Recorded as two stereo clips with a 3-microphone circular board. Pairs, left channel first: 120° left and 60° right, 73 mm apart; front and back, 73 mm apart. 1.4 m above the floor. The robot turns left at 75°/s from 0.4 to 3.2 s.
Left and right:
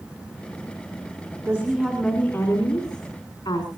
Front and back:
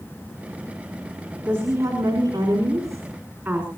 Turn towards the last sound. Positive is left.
turn(degrees=105)